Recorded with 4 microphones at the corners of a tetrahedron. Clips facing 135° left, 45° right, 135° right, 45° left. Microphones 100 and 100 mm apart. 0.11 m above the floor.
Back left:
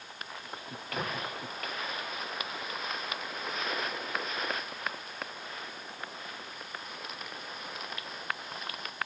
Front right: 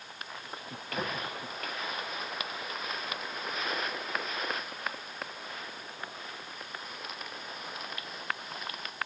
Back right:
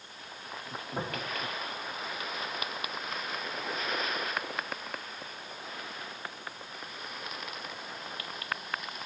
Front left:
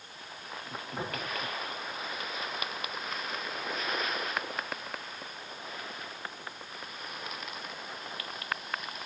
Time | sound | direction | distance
0.9 | tapping | 150° right | 5.5 m